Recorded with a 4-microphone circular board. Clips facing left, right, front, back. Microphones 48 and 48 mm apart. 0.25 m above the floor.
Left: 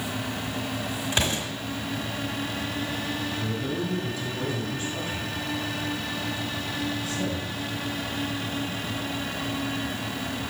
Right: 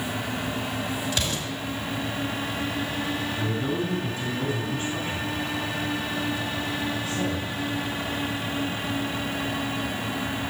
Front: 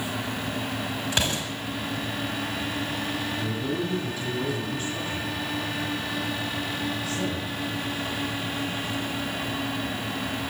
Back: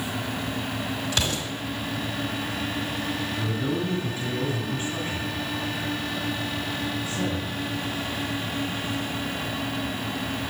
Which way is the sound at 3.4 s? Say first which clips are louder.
Right 2 dB, back 1 dB; 125° right.